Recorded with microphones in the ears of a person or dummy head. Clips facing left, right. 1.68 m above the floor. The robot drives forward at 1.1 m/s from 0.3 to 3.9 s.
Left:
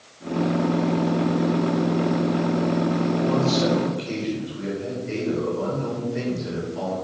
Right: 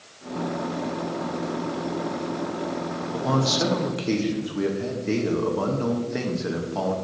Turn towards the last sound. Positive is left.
turn(degrees=-70)  # may be behind; listen again after turning